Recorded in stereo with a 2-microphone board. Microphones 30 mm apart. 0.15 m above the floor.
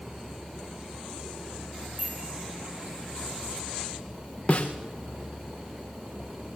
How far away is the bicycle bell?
About 8.5 m.